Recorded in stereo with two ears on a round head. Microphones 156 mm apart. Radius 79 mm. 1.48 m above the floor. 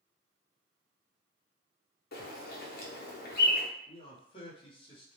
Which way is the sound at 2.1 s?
60° left (ahead or behind).